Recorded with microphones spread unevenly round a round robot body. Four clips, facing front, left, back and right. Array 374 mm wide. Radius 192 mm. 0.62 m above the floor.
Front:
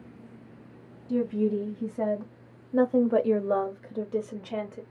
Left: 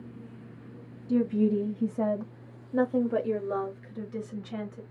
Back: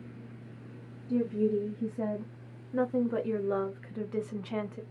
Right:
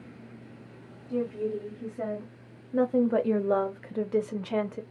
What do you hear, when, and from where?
1.1 s a woman speaking: 60° left, 1.3 m; by 4.8 s 75° right, 1.4 m